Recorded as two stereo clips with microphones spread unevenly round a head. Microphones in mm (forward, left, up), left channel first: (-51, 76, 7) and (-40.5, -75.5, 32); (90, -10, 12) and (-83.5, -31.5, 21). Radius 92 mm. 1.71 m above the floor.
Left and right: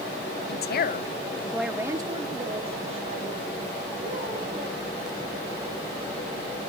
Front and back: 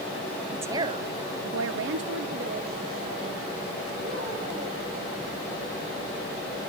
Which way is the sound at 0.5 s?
105° left.